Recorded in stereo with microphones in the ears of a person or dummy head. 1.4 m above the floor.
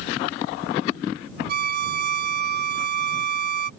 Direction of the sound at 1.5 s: 50° right (ahead or behind).